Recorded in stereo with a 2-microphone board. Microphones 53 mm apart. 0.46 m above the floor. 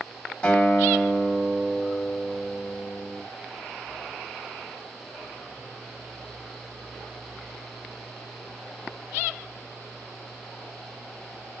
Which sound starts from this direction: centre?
A guitar, at 0.4 s.